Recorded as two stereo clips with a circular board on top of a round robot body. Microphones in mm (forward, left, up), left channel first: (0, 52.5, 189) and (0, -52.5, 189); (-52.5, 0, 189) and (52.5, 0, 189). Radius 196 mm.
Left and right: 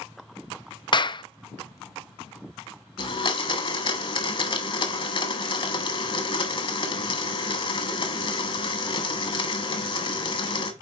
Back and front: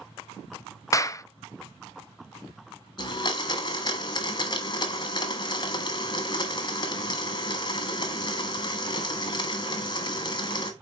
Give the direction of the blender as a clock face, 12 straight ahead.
8 o'clock.